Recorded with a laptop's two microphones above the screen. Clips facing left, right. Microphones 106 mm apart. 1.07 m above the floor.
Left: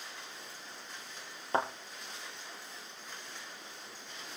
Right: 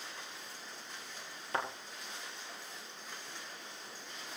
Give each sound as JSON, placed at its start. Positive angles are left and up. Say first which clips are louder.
{"t": 1.5, "sound": "a thud", "louder": "left 5 dB", "side_deg": 30, "distance_m": 2.0}